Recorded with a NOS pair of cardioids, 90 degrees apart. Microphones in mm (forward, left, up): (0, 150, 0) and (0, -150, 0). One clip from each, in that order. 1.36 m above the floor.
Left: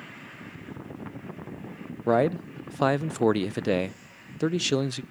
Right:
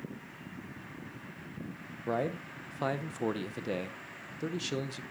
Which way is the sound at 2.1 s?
45° left.